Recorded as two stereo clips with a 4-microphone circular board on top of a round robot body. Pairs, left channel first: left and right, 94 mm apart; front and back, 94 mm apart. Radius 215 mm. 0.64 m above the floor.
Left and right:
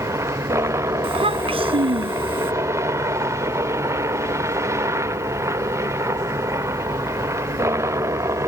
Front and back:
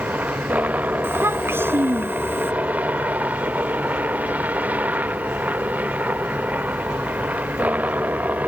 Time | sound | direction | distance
0.0 | a helicopter | 120° right | ?
1.0 | a child speaking | 115° right | ?